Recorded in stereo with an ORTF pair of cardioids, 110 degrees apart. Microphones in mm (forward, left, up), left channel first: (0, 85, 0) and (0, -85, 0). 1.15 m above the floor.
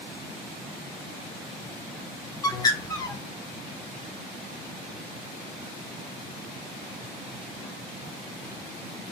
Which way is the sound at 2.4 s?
20° left.